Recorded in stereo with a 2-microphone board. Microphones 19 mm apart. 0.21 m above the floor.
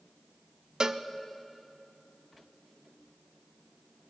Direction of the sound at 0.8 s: 40° right (ahead or behind).